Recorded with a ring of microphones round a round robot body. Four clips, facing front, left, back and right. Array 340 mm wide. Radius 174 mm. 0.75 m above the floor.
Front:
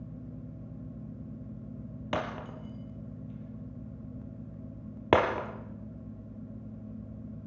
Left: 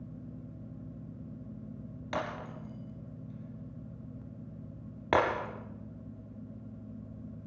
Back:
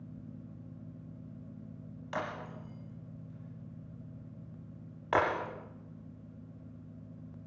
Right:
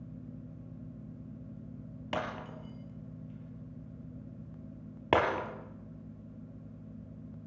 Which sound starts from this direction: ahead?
Breaking glass, at 2.1 s.